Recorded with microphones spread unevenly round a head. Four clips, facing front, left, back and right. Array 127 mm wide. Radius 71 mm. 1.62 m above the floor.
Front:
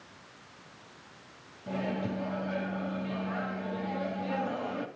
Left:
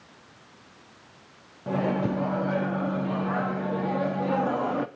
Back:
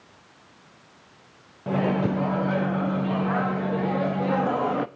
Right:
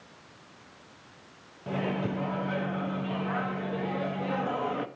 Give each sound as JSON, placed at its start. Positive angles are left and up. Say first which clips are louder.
{"t": 1.7, "sound": "a microwave", "louder": "left 5 dB, back 9 dB", "azimuth_deg": 160, "distance_m": 0.6}